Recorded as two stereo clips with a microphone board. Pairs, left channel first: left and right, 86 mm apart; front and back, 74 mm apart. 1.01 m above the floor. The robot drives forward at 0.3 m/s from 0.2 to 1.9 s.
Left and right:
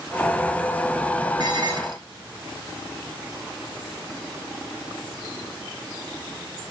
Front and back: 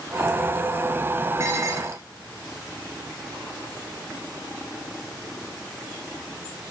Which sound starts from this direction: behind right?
Dishes clattering, at 1.4 s.